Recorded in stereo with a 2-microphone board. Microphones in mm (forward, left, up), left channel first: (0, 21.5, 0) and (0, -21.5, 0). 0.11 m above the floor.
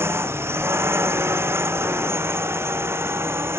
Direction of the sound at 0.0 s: 80° right.